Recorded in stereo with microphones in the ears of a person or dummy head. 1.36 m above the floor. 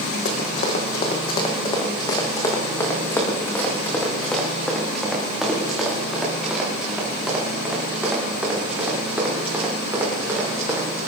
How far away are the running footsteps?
About 2.5 m.